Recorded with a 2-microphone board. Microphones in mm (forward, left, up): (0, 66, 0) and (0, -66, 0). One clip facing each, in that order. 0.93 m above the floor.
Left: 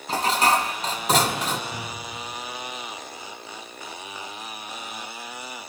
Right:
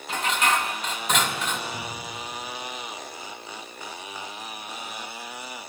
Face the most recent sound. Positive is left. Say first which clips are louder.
# even
turn(degrees=25)  # may be behind; listen again after turning